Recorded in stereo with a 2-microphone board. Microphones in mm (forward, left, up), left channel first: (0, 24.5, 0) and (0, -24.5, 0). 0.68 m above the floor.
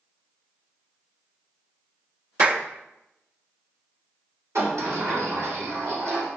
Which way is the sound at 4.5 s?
65° right (ahead or behind).